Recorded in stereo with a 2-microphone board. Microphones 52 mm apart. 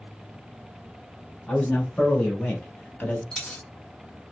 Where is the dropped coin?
10° left (ahead or behind), 0.9 m.